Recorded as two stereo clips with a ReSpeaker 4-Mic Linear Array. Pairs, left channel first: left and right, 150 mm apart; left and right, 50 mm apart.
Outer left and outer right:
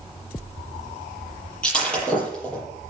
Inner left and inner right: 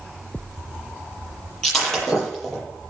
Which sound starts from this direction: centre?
Breaking glass, at 1.6 s.